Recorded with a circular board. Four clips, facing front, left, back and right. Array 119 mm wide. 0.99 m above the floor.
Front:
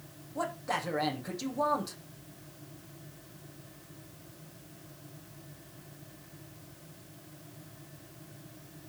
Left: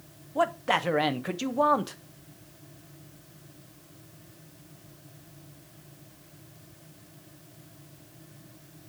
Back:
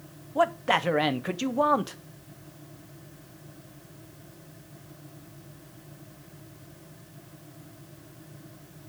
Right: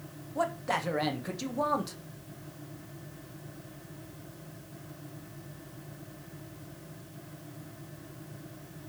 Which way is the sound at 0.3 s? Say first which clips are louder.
Left 5 dB, back 10 dB; 150° left.